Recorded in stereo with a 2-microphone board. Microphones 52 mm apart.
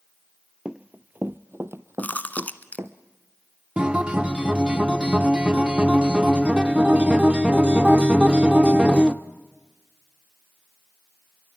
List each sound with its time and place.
0.7 s running footsteps: 20° right (ahead or behind), 0.6 m; by 3.0 s 70° right (ahead or behind), 1.6 m
2.0 s chewing: 35° left (ahead or behind), 1.4 m
3.8 s a guitar: 20° right (ahead or behind), 1.0 m